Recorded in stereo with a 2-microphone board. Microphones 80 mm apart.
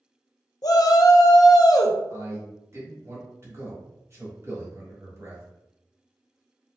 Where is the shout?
55° left (ahead or behind), 0.5 m.